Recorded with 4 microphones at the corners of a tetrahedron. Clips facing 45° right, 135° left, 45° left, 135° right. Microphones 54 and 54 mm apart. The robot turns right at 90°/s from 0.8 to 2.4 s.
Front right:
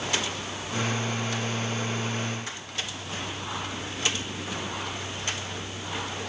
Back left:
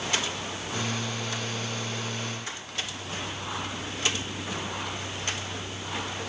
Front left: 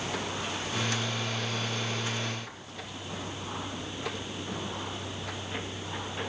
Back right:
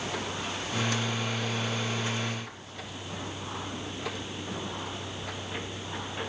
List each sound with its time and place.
Only background noise.